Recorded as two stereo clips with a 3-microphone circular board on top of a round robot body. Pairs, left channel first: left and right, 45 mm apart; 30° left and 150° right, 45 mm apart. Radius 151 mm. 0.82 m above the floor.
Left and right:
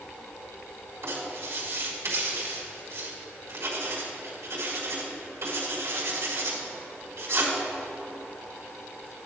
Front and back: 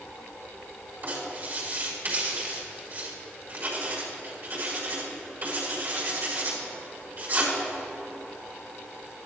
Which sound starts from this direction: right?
Writing, at 1.0 s.